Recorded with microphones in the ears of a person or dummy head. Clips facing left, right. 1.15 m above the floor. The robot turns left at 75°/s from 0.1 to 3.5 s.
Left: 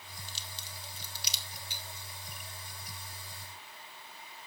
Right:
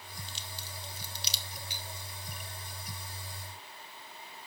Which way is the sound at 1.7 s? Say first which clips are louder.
Right 3 dB; 15° right (ahead or behind).